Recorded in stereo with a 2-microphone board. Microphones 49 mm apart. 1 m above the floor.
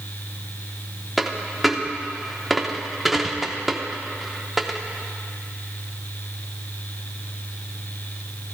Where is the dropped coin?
5° right (ahead or behind), 0.7 m.